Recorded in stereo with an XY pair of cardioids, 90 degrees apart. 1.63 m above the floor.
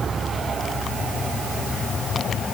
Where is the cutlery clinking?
No cutlery clinking in this recording.